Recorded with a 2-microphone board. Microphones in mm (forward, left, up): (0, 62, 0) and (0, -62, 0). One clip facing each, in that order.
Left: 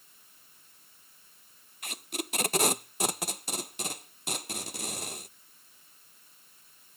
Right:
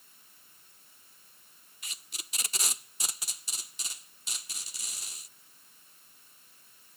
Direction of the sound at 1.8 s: 70° left (ahead or behind).